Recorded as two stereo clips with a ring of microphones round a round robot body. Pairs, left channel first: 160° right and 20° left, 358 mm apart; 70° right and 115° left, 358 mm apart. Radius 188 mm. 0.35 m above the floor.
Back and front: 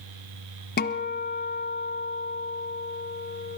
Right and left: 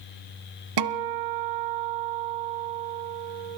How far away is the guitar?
About 1.1 m.